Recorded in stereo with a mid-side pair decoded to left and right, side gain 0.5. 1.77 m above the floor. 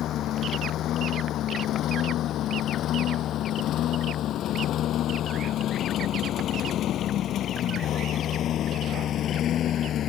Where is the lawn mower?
65° left; by 10.1 s 60° left.